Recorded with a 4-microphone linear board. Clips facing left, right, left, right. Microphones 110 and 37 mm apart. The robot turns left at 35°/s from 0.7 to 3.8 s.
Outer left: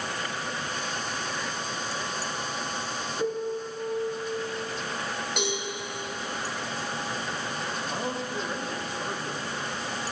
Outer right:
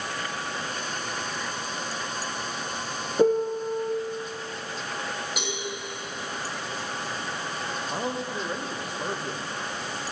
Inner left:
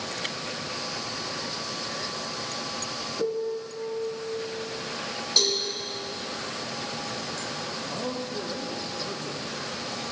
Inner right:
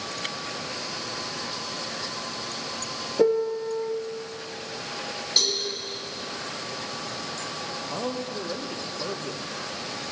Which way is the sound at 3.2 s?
50° right (ahead or behind).